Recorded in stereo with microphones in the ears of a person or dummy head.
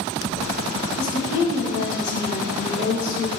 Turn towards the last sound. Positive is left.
turn(degrees=80)